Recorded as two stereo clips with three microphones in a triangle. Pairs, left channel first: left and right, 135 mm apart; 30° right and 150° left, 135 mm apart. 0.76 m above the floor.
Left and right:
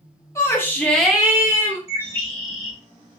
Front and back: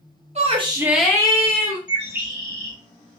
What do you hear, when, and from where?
0.3 s a shout: 155° left, 0.9 m; by 1.8 s 20° right, 1.0 m
1.9 s a bird: 135° right, 1.6 m